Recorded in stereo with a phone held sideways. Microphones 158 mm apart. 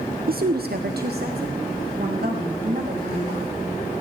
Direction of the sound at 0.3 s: 70° right (ahead or behind).